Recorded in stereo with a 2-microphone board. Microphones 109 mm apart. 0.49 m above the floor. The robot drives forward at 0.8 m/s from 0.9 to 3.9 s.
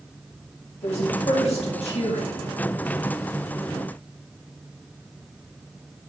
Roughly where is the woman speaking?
Left.